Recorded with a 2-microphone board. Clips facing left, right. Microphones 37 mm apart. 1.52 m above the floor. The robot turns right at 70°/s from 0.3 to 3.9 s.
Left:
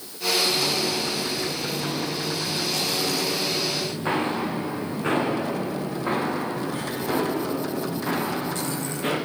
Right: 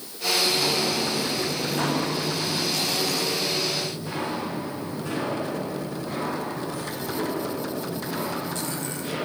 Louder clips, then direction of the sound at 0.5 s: Even; 5° left (ahead or behind).